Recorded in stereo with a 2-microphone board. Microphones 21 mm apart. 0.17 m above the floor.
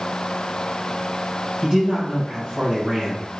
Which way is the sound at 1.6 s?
40° right (ahead or behind).